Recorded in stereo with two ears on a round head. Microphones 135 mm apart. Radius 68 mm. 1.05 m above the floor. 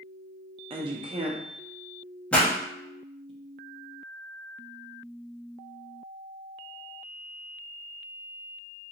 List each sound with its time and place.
0.7 s a woman speaking: 35° right (ahead or behind), 0.6 m
2.3 s a pop: 5° left (ahead or behind), 0.8 m